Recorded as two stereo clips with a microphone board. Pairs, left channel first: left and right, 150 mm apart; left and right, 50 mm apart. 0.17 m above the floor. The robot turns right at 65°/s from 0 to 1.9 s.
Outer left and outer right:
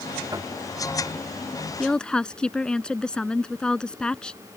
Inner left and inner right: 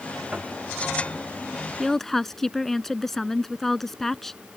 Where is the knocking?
25° right (ahead or behind); by 0.6 s 10° right (ahead or behind).